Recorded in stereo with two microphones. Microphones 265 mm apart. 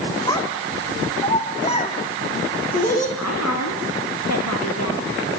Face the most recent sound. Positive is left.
turn(degrees=75)  # may be behind; listen again after turning